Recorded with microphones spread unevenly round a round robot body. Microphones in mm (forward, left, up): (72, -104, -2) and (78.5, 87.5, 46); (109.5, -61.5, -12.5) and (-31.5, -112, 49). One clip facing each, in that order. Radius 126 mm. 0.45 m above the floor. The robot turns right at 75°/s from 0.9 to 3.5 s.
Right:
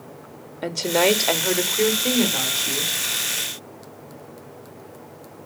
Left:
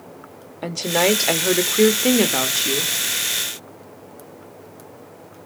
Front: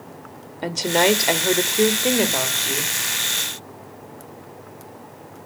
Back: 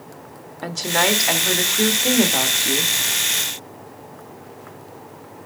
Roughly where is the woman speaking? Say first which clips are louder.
Even, front 4 dB; ahead.